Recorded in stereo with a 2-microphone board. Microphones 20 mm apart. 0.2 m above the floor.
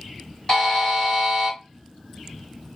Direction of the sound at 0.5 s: 25° left (ahead or behind).